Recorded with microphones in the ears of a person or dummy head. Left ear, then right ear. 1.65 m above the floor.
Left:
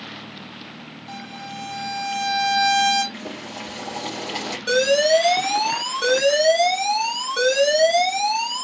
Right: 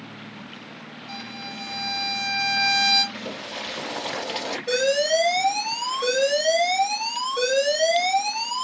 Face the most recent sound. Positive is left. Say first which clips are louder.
# left 4 dB
turn(degrees=65)  # may be behind; listen again after turning